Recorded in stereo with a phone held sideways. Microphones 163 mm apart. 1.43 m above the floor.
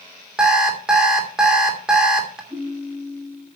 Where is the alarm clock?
5° right (ahead or behind), 2.5 m.